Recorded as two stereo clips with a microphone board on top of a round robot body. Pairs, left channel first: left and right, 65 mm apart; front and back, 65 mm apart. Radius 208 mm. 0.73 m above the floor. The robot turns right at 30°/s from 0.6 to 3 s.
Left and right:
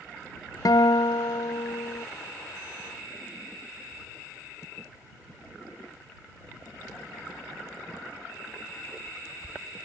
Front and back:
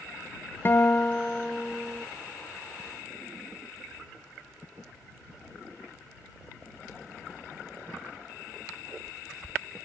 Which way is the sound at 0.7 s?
55° left.